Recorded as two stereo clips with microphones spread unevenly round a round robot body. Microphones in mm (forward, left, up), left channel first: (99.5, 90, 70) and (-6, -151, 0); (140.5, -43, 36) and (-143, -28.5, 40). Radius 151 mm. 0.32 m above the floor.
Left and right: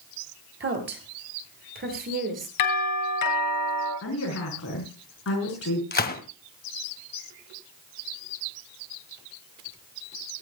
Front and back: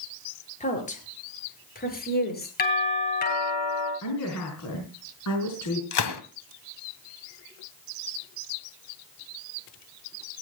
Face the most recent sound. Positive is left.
turn(degrees=5)